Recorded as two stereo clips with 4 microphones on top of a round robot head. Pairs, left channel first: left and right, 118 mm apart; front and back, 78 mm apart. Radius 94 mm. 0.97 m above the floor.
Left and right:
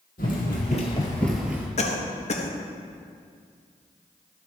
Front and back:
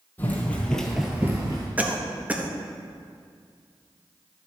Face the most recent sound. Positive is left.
turn(degrees=110)